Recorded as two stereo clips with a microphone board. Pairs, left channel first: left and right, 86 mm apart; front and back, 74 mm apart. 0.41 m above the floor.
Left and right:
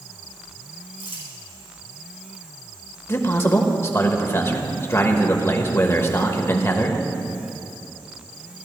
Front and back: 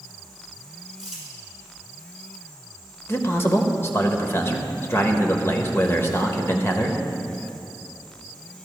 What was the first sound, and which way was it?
Crumpling, 100° right.